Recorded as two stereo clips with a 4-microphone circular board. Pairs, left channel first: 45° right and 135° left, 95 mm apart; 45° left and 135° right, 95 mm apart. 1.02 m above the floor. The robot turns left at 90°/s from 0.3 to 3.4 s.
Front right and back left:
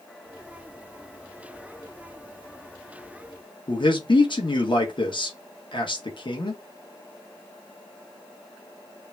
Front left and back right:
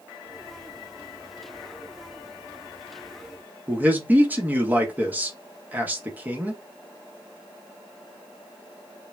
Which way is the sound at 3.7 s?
65° right.